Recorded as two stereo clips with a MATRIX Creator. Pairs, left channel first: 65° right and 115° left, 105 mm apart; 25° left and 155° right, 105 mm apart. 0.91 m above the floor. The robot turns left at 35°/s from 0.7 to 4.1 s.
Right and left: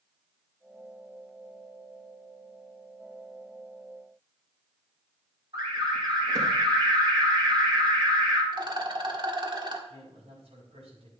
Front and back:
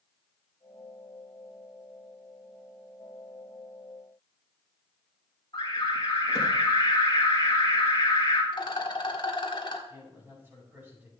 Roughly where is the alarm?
Left.